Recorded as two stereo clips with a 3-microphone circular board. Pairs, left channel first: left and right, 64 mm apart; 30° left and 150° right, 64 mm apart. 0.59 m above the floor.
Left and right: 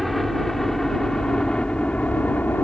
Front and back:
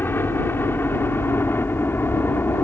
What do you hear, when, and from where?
0.0 s a helicopter: straight ahead; by 2.6 s 50° left